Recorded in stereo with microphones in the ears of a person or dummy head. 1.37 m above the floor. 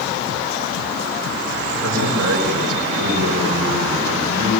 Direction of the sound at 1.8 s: 90° right.